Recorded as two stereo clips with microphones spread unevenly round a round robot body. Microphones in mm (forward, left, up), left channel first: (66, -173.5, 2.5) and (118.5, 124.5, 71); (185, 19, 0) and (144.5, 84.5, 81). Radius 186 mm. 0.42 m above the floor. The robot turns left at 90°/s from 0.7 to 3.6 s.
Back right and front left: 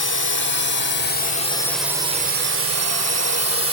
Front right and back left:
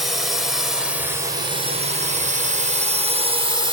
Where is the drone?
95° right; by 3.7 s 55° left.